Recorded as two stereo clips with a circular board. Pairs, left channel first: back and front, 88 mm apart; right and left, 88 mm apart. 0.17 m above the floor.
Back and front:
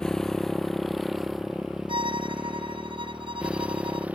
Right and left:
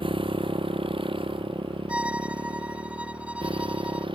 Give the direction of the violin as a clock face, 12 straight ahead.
12 o'clock.